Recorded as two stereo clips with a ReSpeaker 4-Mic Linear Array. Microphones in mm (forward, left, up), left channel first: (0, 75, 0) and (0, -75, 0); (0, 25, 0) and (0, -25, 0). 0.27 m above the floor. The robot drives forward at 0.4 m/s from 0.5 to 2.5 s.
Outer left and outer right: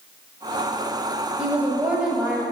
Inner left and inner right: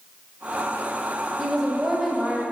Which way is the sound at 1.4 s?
10° right (ahead or behind).